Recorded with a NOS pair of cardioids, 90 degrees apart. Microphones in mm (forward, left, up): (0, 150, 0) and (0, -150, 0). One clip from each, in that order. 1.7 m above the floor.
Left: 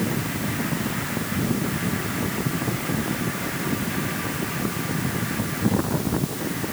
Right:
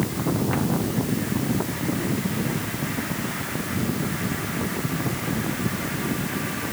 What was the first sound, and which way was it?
Only background noise.